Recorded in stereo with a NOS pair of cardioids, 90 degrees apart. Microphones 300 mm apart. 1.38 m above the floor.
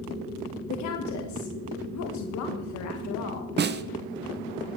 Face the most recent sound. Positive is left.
turn(degrees=-35)